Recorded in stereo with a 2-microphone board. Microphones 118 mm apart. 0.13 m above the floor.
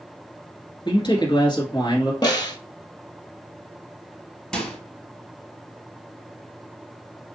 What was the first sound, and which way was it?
A man speaking, 40° left (ahead or behind).